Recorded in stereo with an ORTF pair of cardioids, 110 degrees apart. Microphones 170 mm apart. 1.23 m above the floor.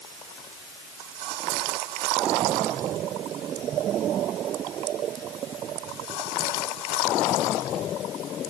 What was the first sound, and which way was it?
Only background noise.